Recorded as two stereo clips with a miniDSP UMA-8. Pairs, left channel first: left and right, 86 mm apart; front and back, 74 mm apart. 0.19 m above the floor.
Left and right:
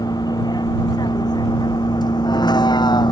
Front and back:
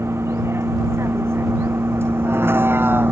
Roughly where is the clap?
No clap in this recording.